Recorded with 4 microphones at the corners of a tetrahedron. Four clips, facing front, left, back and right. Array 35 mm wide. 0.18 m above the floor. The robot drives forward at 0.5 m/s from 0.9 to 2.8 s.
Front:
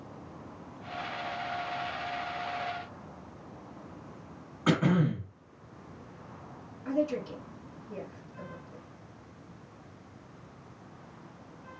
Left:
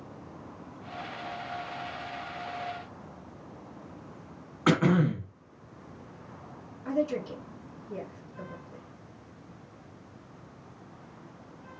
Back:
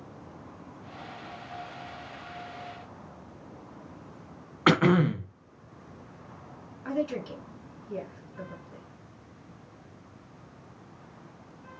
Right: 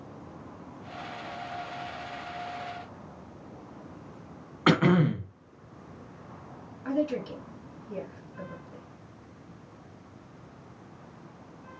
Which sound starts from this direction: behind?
Throat clearing, at 4.7 s.